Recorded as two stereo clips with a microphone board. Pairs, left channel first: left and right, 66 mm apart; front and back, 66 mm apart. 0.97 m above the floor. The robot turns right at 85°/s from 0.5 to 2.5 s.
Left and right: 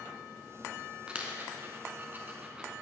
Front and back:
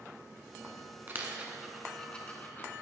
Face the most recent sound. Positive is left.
turn(degrees=-30)